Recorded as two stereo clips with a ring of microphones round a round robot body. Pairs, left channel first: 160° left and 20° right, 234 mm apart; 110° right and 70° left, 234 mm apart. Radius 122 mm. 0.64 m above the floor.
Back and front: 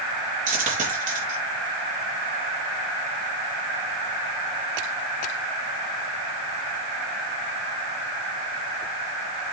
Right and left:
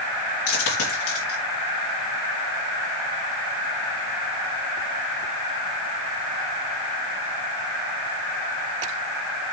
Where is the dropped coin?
80° right, 3 m.